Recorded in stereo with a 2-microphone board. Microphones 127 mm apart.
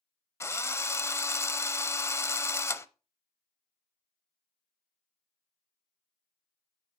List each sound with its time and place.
0.4 s a drill: 20° left (ahead or behind), 0.5 m